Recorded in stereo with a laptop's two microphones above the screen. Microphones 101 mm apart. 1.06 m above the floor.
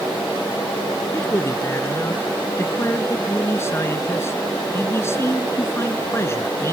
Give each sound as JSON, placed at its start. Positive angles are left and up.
{"t": 1.1, "sound": "a man speaking", "side_deg": 30}